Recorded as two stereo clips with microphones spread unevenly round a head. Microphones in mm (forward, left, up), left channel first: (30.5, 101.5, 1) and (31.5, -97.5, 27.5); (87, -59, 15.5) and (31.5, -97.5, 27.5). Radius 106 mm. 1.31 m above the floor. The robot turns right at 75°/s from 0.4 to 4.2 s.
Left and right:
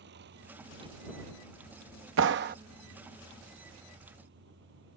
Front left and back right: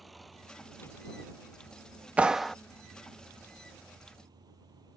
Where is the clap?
80° right; by 2.5 s 50° right.